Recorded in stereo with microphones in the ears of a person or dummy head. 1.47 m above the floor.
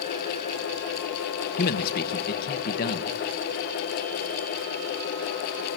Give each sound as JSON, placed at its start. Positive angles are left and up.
{"t": 1.6, "sound": "a man speaking", "side_deg": 50, "distance_m": 1.5}